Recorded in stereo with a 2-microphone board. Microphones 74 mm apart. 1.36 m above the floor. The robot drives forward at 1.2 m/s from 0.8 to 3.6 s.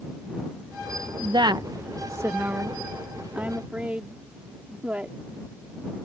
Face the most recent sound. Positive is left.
turn(degrees=-20)  # may be behind; listen again after turning